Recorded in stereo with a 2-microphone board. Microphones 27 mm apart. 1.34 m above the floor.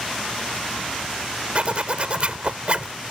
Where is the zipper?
45° right (ahead or behind).